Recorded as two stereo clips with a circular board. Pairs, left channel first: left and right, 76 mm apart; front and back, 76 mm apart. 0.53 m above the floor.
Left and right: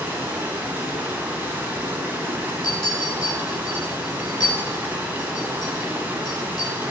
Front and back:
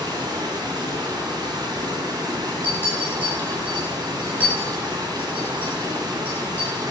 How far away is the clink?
About 5 m.